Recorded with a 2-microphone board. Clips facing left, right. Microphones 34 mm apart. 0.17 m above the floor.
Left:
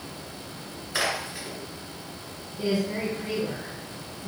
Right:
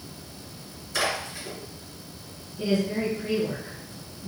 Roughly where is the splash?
Centre.